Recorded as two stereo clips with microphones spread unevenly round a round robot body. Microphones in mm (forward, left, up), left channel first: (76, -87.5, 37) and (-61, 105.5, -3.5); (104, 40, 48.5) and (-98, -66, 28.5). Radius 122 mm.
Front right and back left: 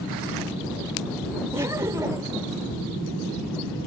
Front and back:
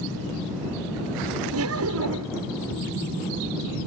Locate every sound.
1.5 s laughter: 160° right